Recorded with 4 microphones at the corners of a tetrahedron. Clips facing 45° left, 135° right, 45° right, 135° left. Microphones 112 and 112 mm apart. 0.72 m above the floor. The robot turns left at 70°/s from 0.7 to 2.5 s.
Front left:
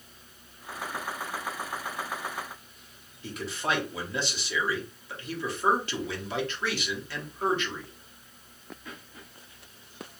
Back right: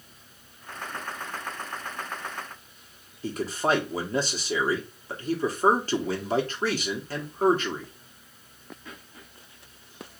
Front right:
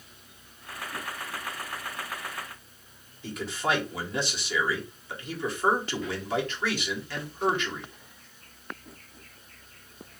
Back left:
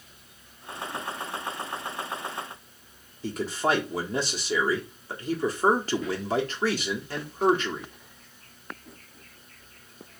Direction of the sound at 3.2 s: Straight behind.